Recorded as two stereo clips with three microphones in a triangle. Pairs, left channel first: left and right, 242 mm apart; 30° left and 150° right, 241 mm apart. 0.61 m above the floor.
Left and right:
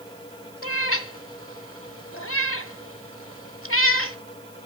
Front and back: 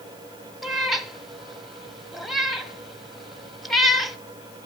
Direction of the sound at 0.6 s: 120° left.